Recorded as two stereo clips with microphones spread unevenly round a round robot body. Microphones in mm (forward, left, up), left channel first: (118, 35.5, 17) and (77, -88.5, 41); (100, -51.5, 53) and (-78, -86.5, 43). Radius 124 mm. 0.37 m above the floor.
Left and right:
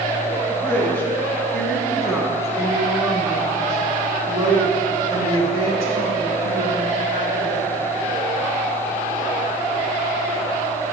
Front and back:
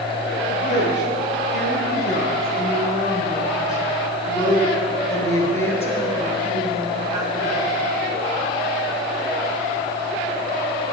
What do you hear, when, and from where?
0.5 s a woman speaking: straight ahead, 4 m; by 7.7 s 85° right, 5 m